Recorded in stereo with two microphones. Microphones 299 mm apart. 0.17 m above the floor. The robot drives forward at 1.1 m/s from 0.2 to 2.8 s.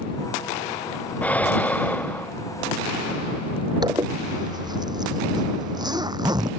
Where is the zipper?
15° right (ahead or behind).